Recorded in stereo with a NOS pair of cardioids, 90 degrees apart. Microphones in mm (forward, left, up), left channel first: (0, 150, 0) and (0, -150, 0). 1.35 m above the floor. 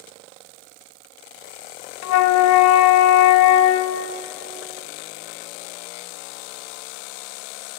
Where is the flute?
65° left, 0.5 m.